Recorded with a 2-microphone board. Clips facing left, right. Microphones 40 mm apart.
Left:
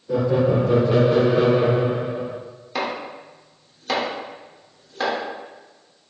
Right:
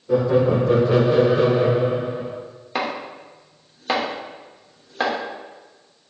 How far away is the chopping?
About 1.0 m.